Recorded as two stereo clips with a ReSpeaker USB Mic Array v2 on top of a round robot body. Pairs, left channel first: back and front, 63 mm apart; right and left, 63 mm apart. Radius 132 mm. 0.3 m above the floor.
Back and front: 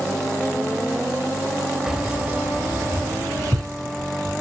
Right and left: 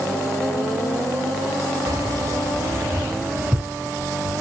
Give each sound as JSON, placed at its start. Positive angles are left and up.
{"t": 1.9, "sound": "keys jangling", "azimuth_deg": 80, "distance_m": 1.5}